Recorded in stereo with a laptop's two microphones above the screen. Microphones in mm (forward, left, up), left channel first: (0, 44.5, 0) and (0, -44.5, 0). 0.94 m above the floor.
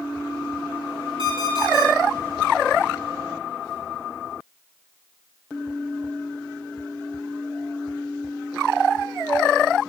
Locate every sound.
1.2 s an alarm clock: 70° right (ahead or behind), 5.5 m